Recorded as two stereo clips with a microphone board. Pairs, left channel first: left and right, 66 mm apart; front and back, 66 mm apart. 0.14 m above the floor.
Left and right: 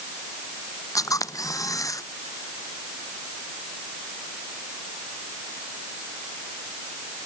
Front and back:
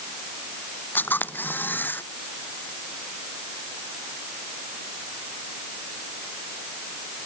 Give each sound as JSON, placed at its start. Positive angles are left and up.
{"t": 0.9, "sound": "a camera shutter", "azimuth_deg": 60}